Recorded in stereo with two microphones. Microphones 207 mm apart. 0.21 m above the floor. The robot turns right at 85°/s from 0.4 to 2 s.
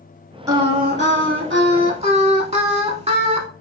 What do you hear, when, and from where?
0.5 s singing: 165° right, 0.7 m; by 3.5 s 35° right, 0.7 m